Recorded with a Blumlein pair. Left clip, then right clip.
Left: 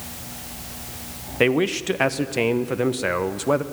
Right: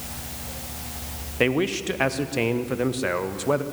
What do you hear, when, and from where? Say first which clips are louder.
1.4 s a man speaking: left 3 dB; 10° left, 0.9 m